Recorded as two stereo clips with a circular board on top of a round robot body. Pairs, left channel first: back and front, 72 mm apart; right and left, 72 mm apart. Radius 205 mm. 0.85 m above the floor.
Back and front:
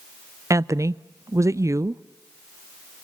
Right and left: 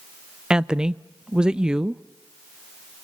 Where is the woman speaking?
15° left, 0.8 m.